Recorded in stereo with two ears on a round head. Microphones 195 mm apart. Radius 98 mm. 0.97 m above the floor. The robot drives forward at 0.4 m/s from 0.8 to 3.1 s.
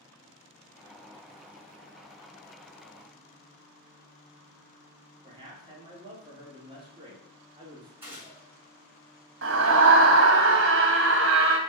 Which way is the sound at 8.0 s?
10° right (ahead or behind).